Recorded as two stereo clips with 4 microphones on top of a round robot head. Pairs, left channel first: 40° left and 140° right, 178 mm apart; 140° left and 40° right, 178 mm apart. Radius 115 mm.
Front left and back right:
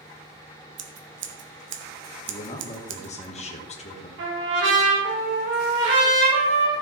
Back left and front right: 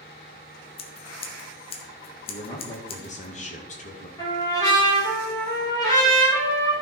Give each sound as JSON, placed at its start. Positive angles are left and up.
{"t": 0.8, "sound": "scissors", "azimuth_deg": -160, "distance_m": 1.0}
{"t": 2.3, "sound": "a man speaking", "azimuth_deg": 90, "distance_m": 1.9}
{"t": 4.2, "sound": "a trumpet", "azimuth_deg": -150, "distance_m": 4.5}